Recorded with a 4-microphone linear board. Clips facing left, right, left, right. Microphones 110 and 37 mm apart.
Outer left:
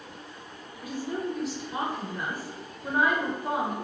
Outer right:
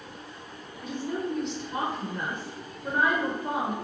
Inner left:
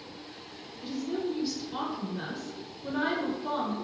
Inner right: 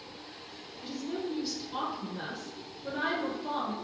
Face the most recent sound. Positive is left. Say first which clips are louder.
# even, inner left 3 dB
turn(degrees=5)  # may be behind; listen again after turning